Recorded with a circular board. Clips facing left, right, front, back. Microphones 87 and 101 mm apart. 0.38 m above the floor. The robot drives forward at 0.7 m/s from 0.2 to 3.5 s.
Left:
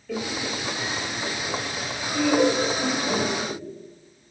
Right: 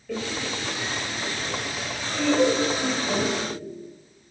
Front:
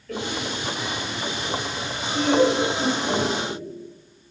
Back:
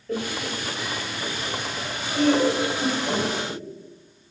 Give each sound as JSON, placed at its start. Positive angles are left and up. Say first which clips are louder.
{"t": 0.1, "sound": "laughter", "louder": "left 1 dB, even", "azimuth_deg": -170, "distance_m": 0.8}